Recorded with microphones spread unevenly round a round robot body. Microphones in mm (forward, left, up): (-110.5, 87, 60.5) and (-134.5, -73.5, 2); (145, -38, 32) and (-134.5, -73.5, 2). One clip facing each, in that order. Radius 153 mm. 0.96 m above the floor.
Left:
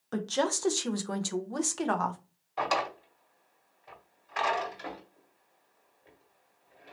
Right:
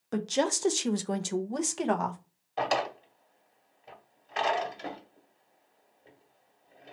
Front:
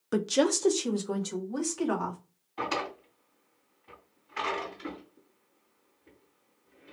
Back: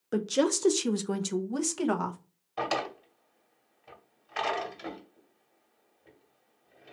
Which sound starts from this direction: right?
A woman speaking, at 0.1 s.